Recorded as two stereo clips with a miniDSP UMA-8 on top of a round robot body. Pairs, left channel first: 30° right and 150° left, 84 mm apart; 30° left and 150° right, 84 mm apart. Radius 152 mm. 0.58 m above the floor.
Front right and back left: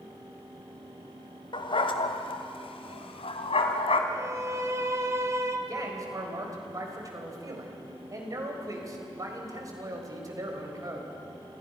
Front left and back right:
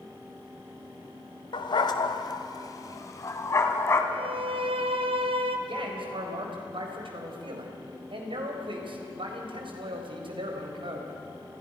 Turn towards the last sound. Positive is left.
turn(degrees=-160)